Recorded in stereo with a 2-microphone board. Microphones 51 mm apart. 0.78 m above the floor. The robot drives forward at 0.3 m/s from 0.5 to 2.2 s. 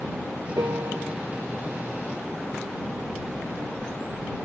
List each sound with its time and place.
0.6 s a piano: 85° right